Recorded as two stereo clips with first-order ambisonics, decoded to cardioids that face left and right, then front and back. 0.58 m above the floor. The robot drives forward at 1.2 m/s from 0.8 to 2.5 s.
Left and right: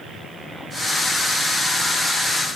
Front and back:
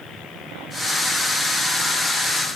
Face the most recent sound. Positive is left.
No sound to turn to.